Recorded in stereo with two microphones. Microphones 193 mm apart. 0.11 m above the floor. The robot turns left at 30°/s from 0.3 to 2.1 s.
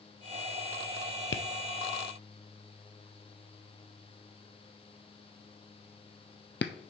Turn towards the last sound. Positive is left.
turn(degrees=65)  # may be behind; listen again after turning